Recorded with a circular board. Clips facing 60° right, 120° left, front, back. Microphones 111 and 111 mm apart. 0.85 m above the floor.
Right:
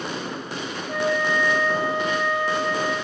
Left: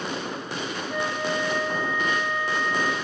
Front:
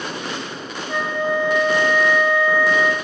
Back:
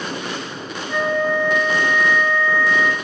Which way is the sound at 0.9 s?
75° right.